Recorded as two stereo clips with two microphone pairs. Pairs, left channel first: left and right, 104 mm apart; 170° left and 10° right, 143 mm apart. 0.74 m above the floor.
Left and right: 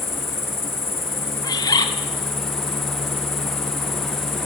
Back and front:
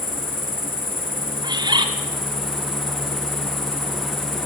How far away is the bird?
About 1.8 m.